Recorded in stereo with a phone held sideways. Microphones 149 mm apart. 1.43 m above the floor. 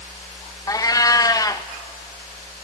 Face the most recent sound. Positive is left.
turn(degrees=25)  # may be behind; listen again after turning